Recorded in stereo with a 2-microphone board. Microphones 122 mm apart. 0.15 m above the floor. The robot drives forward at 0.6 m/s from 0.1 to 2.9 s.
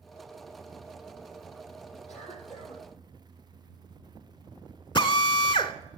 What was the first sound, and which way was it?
A cough, 60° left (ahead or behind).